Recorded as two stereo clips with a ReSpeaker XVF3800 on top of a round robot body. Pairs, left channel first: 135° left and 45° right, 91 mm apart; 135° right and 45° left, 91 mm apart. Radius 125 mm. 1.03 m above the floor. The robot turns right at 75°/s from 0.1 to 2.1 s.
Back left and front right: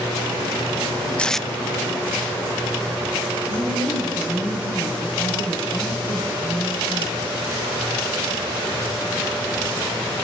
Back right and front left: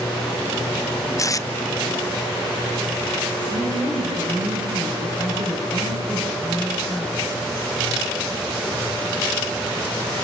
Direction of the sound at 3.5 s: 165° right.